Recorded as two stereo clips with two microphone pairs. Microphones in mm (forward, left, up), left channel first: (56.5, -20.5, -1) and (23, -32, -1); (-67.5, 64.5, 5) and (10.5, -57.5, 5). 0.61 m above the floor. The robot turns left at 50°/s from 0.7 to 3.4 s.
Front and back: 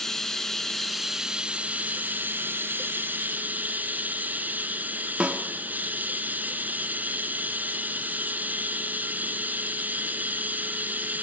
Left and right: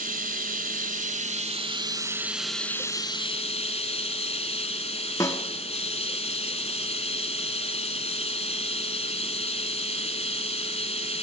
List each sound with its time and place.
0.0 s running water: 60° right, 1.4 m; by 11.2 s 165° left, 1.4 m
5.2 s a snare drum: 170° left, 1.4 m